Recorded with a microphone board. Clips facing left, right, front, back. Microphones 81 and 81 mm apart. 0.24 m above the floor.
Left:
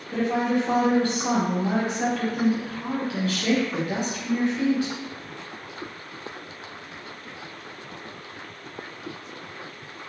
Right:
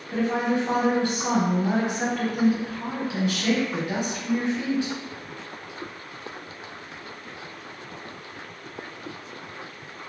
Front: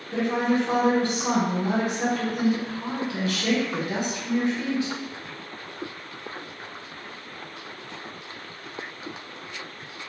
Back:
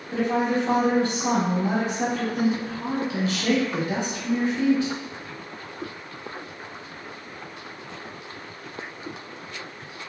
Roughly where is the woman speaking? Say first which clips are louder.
Left 1 dB, even; behind right.